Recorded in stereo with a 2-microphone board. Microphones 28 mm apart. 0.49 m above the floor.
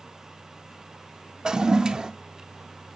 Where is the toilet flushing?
30° right (ahead or behind), 0.5 m.